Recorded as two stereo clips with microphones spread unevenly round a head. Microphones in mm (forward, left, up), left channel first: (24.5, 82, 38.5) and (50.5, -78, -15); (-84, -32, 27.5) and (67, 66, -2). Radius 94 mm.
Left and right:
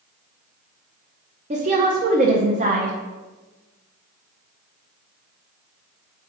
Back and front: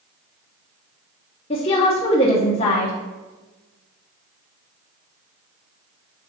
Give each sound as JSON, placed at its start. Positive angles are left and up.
{"t": 1.5, "sound": "a woman speaking", "azimuth_deg": -85, "distance_m": 0.8}